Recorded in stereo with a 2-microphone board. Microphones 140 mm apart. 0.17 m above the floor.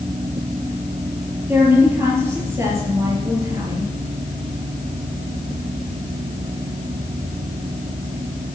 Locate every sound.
1.5 s a woman speaking: 15° right (ahead or behind), 5 m; by 3.9 s 30° right (ahead or behind), 3.5 m